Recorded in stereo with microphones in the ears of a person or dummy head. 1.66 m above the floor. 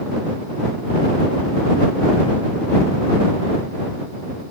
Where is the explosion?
I don't hear an explosion.